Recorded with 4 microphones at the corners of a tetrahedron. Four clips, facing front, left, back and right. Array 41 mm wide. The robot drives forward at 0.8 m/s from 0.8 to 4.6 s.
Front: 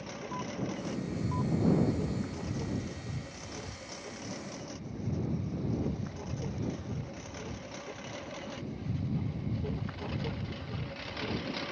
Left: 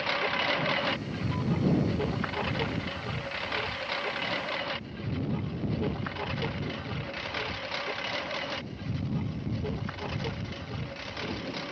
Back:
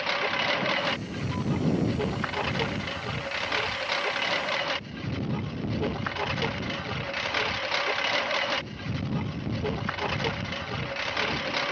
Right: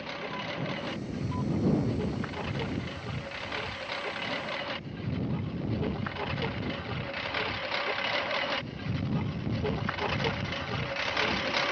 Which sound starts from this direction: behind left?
A lawn mower, at 0.0 s.